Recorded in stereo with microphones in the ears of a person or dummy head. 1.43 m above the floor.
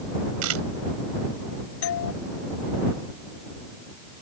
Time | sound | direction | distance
0.4 | a camera shutter | 85° right | ?
1.8 | a doorbell | 70° left (ahead or behind) | ?